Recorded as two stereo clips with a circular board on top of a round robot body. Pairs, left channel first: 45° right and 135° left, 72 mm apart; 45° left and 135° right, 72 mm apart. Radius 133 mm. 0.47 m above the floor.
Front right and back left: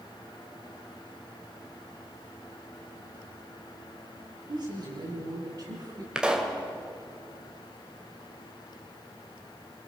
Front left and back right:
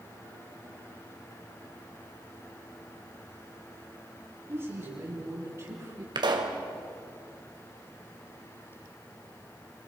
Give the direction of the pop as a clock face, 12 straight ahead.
5 o'clock.